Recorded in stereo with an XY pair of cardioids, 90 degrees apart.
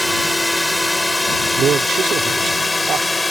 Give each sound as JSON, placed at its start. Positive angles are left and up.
{"t": 0.0, "sound": "a drone", "azimuth_deg": 5}
{"t": 1.6, "sound": "a man speaking", "azimuth_deg": -70}